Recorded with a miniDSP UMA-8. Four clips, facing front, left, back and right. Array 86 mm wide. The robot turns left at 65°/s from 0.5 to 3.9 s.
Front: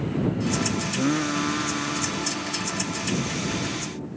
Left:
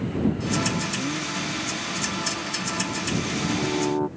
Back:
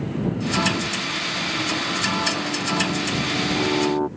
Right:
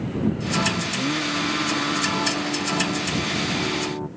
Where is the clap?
No clap in this recording.